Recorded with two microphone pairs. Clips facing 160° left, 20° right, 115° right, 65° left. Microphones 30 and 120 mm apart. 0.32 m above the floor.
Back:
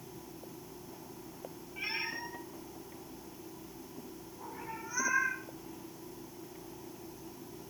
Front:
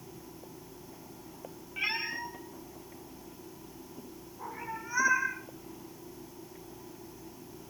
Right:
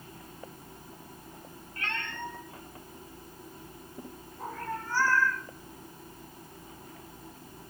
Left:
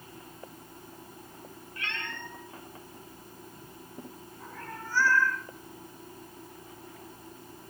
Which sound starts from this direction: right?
A cat meowing, at 1.8 s.